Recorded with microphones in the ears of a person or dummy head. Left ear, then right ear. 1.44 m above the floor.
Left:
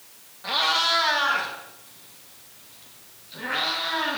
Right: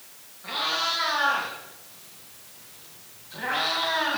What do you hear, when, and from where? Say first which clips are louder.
0.4 s a cat meowing: left 5 dB; 15° left (ahead or behind), 1.8 m; by 4.2 s 55° right (ahead or behind), 3 m